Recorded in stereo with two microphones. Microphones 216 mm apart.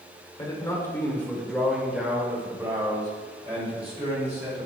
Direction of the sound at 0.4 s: 20° left (ahead or behind).